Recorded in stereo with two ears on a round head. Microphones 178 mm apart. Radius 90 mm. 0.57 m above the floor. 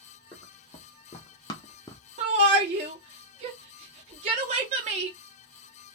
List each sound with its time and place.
0.3 s running footsteps: 20° left (ahead or behind), 1.8 m; by 2.0 s 15° left (ahead or behind), 0.5 m
2.2 s a shout: 35° right (ahead or behind), 0.7 m